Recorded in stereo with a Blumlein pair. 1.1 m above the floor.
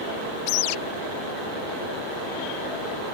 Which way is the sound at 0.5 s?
45° left.